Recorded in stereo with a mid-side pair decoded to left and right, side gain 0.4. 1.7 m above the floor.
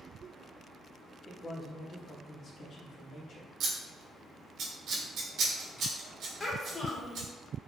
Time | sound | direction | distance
1.3 | a man speaking | 25° left | 1.0 m
3.6 | scissors | 70° right | 1.5 m
6.4 | a child speaking | 35° left | 1.6 m